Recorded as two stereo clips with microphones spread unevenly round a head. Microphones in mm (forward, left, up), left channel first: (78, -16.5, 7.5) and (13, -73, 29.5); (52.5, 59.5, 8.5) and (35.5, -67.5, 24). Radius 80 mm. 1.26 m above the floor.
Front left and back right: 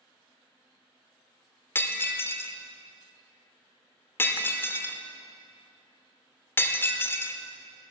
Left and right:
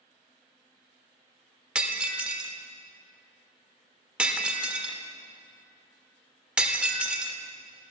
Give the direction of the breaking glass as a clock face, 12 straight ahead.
1 o'clock.